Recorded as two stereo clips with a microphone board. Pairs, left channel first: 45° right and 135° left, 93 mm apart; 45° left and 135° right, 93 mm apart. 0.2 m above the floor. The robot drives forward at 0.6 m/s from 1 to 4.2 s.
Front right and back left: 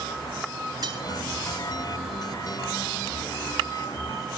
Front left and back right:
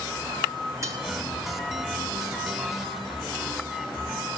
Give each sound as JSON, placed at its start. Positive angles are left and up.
{"t": 0.8, "sound": "cutlery clinking", "azimuth_deg": 175, "distance_m": 2.0}